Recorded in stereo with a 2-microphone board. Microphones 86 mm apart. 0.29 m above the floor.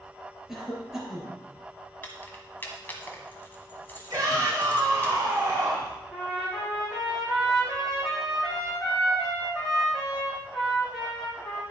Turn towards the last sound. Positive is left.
turn(degrees=5)  # may be behind; listen again after turning